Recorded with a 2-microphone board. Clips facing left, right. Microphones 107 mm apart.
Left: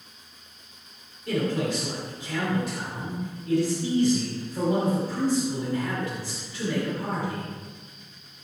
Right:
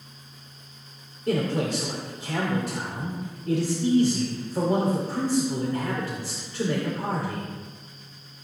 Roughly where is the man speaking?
Right.